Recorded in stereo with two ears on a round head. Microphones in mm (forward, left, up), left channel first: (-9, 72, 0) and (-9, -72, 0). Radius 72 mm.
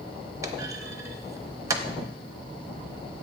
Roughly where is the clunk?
Centre.